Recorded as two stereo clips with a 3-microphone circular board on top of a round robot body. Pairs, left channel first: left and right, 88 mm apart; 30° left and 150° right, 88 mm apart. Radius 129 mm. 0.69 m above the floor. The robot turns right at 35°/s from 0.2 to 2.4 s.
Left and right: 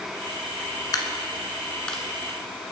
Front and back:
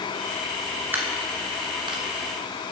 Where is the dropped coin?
135° left, 1.4 m; by 2.0 s 175° left, 1.4 m.